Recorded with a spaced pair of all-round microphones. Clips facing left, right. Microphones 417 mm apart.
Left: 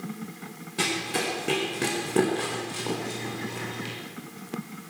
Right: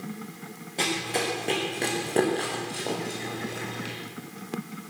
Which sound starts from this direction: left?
Running footsteps, at 0.8 s.